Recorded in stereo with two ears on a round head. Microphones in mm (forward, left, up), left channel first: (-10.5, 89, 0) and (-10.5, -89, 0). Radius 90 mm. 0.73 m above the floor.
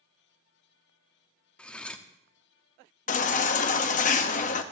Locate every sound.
1.6 s cutlery clinking: 5° left (ahead or behind), 0.7 m
3.1 s a baby crying: 40° left (ahead or behind), 0.8 m